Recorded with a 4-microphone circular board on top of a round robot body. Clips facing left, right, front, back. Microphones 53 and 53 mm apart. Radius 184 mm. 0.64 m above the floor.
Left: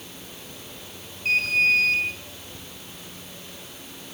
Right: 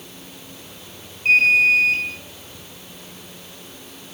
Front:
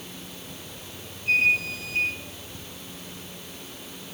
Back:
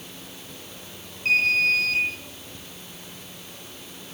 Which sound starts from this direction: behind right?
An alarm, at 1.2 s.